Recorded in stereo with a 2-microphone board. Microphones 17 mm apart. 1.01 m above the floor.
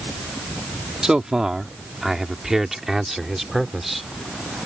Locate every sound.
1.0 s a man speaking: 45° right (ahead or behind); by 4.1 s 10° right (ahead or behind)